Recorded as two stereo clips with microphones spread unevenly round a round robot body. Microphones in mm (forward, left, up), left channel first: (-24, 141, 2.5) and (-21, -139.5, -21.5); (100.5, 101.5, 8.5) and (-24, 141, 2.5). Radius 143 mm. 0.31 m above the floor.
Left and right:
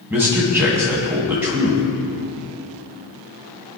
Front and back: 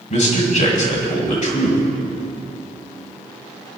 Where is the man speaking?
10° right, 2.5 m.